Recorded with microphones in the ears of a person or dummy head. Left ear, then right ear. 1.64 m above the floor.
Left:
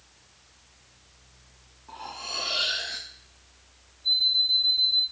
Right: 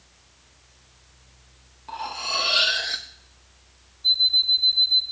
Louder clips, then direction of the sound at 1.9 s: Right 7 dB; 20° right (ahead or behind).